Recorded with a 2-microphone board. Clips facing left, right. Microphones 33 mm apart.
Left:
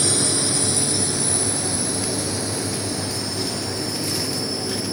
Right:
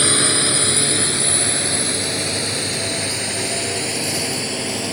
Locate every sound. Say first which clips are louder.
0.0 s a drone: right 5 dB; 50° right (ahead or behind); by 4.9 s 70° right (ahead or behind)